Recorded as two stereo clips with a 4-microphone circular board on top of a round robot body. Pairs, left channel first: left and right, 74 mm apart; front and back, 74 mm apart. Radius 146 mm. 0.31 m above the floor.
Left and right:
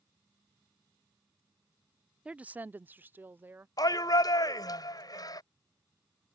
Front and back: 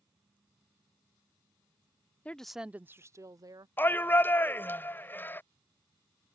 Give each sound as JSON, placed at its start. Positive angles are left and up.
{"t": 2.2, "sound": "a woman speaking", "azimuth_deg": -40}
{"t": 3.8, "sound": "a shout", "azimuth_deg": 65}